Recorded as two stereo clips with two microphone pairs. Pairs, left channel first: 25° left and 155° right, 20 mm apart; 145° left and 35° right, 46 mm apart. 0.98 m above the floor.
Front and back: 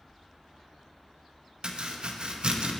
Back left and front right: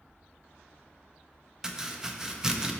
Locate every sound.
1.6 s chopping: 115° right, 0.7 m